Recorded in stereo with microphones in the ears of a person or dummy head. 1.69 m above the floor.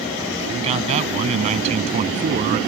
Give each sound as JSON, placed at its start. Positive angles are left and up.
{"t": 0.5, "sound": "a man speaking", "side_deg": -35}